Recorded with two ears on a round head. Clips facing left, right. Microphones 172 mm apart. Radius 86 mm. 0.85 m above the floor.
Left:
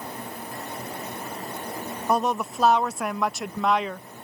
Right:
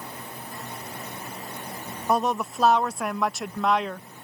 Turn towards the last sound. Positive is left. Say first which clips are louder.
# even
turn(degrees=5)  # may be behind; listen again after turning